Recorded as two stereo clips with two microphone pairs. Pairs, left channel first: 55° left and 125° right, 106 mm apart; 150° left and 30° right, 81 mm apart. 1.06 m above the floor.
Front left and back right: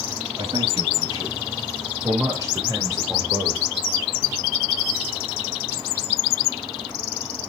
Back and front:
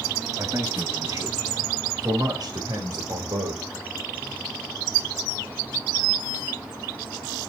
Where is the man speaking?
85° right, 6 m; by 3.6 s 60° right, 3.5 m.